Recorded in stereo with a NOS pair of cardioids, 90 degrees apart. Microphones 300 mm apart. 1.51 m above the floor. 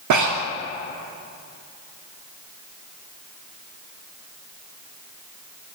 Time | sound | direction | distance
0.1 | breathing | 65° right | 0.6 m